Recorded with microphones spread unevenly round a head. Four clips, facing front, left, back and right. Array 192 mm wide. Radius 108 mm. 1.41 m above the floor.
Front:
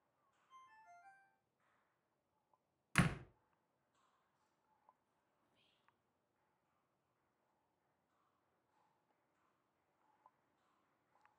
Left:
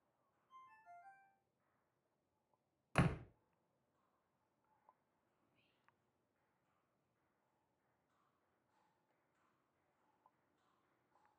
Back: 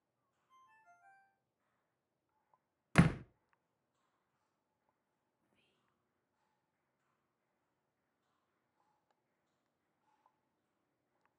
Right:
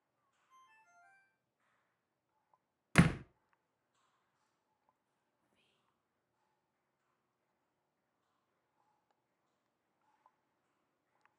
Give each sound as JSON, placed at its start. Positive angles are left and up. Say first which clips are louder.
{"t": 0.5, "sound": "a ringtone", "louder": "left 4 dB, front 3 dB", "azimuth_deg": 155, "distance_m": 8.0}
{"t": 3.0, "sound": "a door slam", "louder": "right 8 dB, back 7 dB", "azimuth_deg": -125, "distance_m": 0.7}
{"t": 5.4, "sound": "whispering", "louder": "even, back 1 dB", "azimuth_deg": -160, "distance_m": 1.1}